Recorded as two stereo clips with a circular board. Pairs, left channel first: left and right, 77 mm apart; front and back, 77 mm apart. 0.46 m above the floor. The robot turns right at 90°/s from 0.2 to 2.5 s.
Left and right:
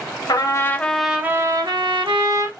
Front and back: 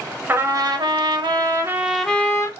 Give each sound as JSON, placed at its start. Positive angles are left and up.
{"t": 0.3, "sound": "a trumpet", "azimuth_deg": 115, "distance_m": 0.6}